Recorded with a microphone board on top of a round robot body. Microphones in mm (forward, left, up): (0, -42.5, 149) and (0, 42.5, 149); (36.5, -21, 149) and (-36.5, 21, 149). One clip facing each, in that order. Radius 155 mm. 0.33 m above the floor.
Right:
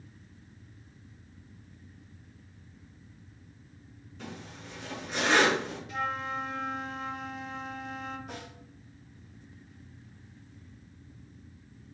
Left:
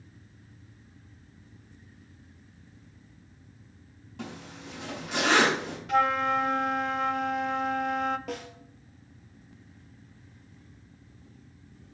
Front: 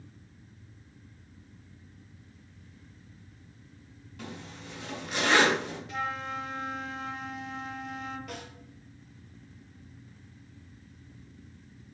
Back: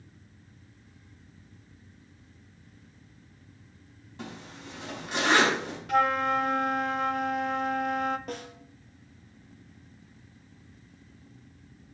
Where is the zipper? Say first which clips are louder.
Left 3 dB, back 1 dB; 90° left, 4.5 m.